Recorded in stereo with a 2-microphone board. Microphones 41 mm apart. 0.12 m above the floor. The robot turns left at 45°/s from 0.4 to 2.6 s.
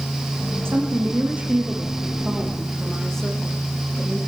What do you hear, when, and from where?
0.7 s a woman speaking: 100° right, 7 m; by 4.2 s 170° left, 7 m